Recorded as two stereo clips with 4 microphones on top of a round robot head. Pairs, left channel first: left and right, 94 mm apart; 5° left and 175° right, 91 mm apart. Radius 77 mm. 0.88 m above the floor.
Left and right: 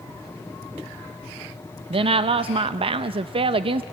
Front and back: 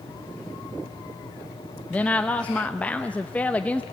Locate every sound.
1.9 s a woman speaking: 70° right, 0.6 m